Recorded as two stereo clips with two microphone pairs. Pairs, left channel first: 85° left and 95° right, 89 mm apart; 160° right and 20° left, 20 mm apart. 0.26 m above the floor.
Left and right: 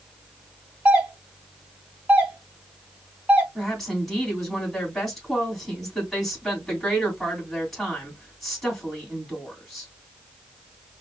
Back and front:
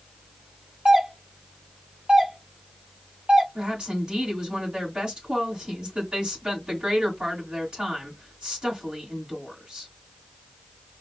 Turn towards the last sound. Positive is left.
turn(degrees=-5)